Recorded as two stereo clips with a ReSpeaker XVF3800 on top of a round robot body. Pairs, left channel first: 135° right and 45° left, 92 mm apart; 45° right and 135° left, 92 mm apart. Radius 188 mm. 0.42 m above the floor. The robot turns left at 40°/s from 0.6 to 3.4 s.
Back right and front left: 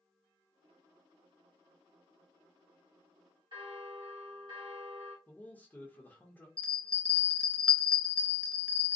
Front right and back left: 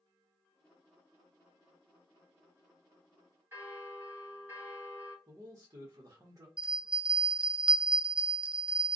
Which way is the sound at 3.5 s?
70° left.